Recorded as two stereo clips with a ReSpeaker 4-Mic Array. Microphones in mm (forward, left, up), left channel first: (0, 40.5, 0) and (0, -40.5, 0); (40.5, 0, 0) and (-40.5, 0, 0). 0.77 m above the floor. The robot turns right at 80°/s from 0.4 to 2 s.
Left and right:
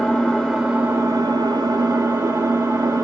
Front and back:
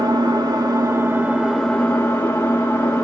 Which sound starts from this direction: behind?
An engine running, at 0.0 s.